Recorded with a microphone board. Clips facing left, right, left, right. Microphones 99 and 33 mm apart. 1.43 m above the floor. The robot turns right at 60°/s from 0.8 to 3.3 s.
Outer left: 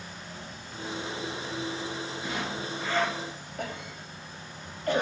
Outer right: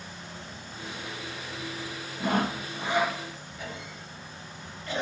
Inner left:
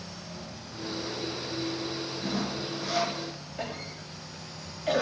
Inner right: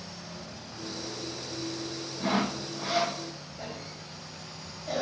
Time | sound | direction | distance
2.2 | sawing | 60° right | 0.7 m
3.6 | a cough | 55° left (ahead or behind) | 4 m